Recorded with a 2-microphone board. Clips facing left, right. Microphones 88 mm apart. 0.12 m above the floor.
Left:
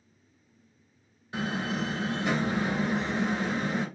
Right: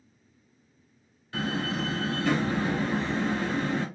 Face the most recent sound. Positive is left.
turn(degrees=15)  # may be behind; listen again after turning